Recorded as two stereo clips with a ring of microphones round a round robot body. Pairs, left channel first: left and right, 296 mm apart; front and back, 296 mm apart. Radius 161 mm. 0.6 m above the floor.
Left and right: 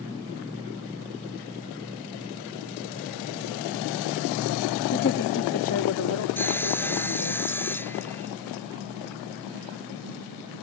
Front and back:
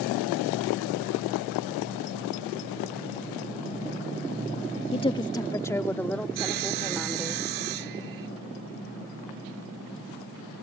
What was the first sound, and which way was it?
A woman speaking, 55° left.